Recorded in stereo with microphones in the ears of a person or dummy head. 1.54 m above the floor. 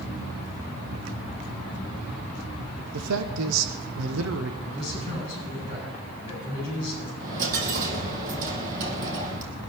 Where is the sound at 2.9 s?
80° right, 0.9 m.